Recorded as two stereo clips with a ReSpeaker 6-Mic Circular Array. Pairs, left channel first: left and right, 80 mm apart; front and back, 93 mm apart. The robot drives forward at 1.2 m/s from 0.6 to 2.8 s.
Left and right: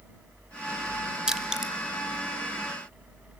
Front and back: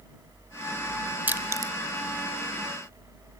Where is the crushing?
150° right, 0.9 m; by 1.7 s 170° right, 1.2 m.